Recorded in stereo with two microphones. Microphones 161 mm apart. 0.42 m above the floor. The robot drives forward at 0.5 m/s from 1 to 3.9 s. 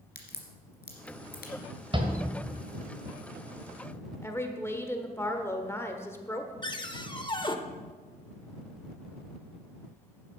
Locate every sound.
0.1 s a crack: 90° left, 2.0 m; by 1.5 s 80° left, 2 m
1.9 s a shout: 30° right (ahead or behind), 1.7 m
4.2 s a woman speaking: 15° left (ahead or behind), 1.1 m
6.6 s a cupboard door: 30° left (ahead or behind), 0.7 m